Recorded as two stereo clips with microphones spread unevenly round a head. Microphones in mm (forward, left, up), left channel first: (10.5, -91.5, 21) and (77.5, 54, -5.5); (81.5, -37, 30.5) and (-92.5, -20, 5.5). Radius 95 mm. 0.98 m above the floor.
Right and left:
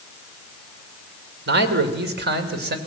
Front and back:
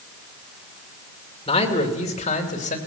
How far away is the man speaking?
About 2.5 m.